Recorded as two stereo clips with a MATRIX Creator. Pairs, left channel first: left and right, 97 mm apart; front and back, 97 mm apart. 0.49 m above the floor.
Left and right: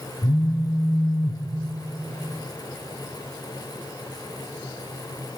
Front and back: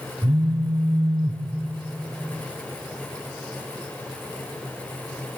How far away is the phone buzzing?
About 0.6 m.